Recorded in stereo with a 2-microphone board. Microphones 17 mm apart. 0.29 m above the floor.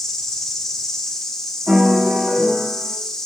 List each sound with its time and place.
0.0 s an insect: 25° left (ahead or behind), 6.5 m
1.7 s a piano: 65° right (ahead or behind), 7.5 m